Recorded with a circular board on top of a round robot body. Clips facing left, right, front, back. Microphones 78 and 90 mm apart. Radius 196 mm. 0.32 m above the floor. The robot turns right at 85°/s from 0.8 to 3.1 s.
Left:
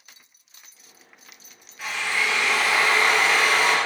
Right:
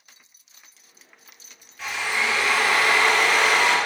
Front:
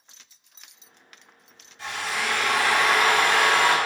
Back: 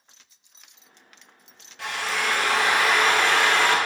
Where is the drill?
175° left, 1.6 m; by 3.8 s 75° right, 1.6 m.